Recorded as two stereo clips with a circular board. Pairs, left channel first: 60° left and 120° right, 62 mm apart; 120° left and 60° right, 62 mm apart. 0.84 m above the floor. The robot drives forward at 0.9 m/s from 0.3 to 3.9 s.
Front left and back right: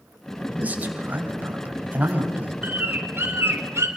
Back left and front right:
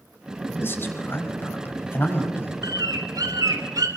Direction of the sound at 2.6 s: 60° right.